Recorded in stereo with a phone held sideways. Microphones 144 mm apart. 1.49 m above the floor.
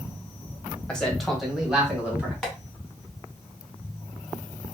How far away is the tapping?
About 1.2 m.